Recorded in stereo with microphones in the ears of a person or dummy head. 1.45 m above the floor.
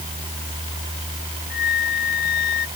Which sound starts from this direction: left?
A flute, at 1.5 s.